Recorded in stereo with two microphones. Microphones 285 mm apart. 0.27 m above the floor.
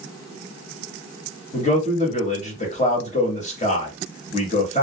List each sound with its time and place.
1.5 s a man speaking: 25° left (ahead or behind), 1.1 m